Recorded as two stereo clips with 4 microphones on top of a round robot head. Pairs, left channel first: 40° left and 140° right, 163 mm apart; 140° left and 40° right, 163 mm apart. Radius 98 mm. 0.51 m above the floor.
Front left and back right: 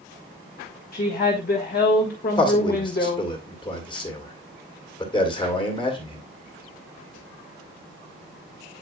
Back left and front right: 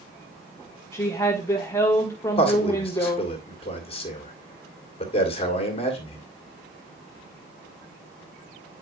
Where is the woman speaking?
65° left, 1.7 m.